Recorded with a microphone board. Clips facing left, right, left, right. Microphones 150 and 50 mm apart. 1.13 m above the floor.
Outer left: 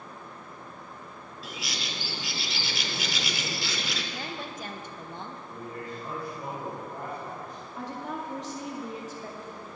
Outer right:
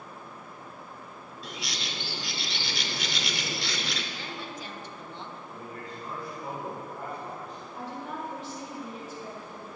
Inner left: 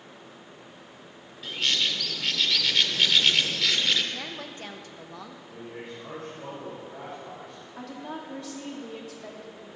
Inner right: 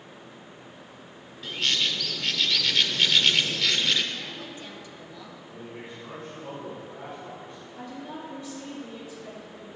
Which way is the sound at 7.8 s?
80° left.